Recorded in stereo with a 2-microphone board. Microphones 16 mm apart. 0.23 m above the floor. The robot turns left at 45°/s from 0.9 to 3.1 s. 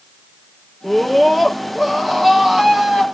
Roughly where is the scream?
Ahead left.